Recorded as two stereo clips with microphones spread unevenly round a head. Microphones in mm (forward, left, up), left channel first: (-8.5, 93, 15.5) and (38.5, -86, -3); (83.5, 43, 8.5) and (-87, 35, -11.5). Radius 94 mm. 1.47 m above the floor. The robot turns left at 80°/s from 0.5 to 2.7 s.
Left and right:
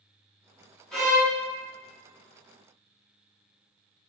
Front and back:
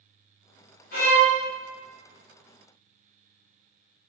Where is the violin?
20° left, 0.8 m; by 1.3 s 10° right, 0.8 m.